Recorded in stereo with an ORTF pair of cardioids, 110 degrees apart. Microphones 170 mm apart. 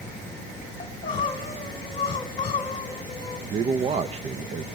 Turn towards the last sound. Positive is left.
turn(degrees=-40)